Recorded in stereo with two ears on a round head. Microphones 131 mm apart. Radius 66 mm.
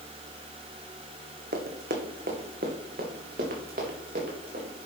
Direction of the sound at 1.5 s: 65° right (ahead or behind).